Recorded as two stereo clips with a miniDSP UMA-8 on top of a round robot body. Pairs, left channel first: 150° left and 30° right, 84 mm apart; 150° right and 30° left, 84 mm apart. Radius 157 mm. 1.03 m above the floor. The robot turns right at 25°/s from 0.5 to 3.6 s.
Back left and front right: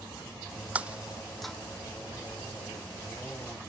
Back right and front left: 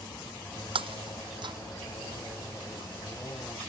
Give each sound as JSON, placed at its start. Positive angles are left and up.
{"t": 0.8, "sound": "breaking glass", "azimuth_deg": 45}